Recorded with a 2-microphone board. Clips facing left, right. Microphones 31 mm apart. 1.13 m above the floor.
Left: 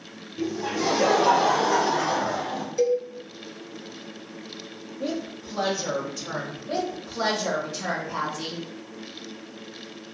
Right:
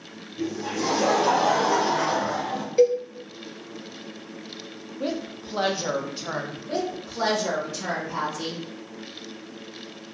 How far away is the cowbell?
About 0.6 m.